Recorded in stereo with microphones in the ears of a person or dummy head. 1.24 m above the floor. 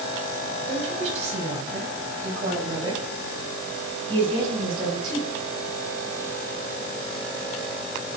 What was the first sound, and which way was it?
A woman speaking, 40° right (ahead or behind).